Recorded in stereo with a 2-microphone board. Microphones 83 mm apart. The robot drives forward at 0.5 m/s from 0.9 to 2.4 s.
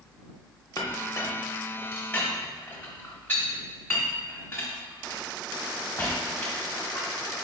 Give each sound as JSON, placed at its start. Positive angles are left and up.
{"t": 0.8, "sound": "a clink", "side_deg": 45, "distance_m": 0.7}